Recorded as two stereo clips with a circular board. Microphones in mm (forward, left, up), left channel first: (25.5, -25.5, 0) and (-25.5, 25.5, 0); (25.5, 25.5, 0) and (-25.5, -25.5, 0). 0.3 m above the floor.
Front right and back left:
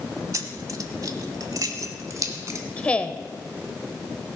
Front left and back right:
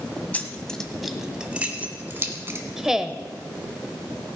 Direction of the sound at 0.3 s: 110° left.